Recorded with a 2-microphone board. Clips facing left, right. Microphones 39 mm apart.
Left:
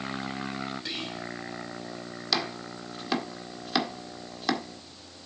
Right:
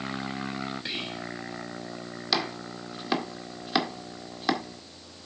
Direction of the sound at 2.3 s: 5° right (ahead or behind).